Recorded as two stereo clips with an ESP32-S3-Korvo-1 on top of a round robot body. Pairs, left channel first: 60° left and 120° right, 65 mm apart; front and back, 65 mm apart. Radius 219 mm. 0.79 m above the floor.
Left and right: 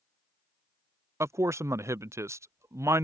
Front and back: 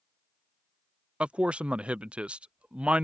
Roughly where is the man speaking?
Right.